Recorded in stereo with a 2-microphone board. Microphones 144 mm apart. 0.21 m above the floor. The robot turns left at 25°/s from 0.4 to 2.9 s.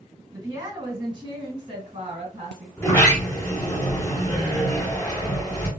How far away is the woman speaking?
About 1.9 m.